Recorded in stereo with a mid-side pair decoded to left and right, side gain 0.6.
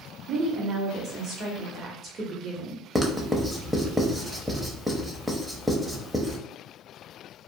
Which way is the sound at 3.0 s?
5° right.